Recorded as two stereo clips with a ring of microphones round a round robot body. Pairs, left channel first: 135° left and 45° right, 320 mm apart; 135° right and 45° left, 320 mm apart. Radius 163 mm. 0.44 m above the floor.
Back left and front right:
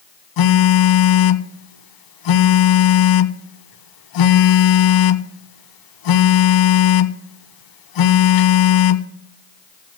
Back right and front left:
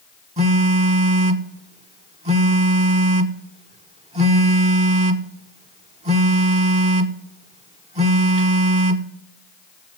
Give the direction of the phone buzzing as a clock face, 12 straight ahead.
8 o'clock.